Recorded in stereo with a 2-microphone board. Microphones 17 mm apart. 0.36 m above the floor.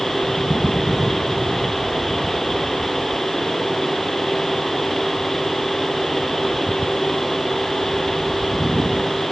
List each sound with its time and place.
Only background noise.